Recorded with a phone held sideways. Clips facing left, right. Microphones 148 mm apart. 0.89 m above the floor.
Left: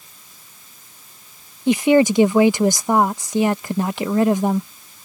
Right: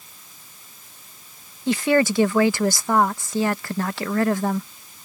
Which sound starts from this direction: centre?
A woman speaking, at 1.7 s.